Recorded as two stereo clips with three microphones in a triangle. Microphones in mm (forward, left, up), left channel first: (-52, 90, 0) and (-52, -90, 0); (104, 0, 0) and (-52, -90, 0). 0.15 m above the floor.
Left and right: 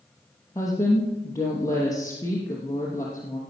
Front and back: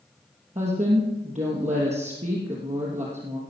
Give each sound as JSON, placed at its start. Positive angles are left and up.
{"t": 0.6, "sound": "a woman speaking", "azimuth_deg": 160, "distance_m": 3.0}